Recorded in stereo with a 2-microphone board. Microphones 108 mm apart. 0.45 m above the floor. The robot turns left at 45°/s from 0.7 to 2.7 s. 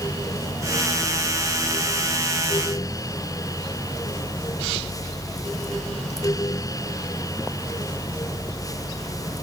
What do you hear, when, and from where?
Only background noise.